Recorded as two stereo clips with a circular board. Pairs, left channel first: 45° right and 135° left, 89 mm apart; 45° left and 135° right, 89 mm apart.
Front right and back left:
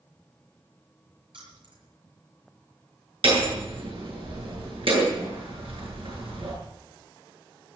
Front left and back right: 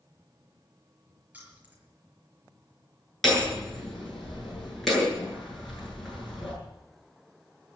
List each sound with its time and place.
1.3 s keys jangling: 155° left, 6 m
3.2 s hammering: 135° left, 8 m